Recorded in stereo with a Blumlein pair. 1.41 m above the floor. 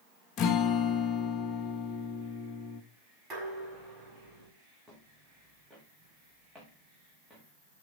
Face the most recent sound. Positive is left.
turn(degrees=-10)